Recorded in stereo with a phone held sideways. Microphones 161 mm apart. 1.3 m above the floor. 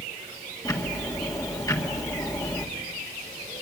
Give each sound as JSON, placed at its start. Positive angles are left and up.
{"t": 0.7, "sound": "ticking", "side_deg": 20, "distance_m": 1.9}